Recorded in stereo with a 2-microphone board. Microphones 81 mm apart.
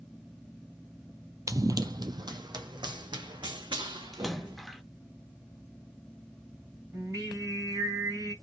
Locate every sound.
1.5 s running footsteps: 45° right (ahead or behind), 0.5 m; by 4.6 s 75° right (ahead or behind), 2 m
4.1 s a splash: centre (ahead or behind), 0.5 m
6.9 s singing: 50° right (ahead or behind), 2.5 m